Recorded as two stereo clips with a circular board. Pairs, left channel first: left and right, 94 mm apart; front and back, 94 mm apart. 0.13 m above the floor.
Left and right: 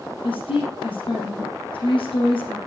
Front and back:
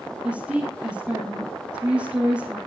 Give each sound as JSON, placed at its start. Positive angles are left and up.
{"t": 0.2, "sound": "a woman speaking", "azimuth_deg": 100, "distance_m": 3.5}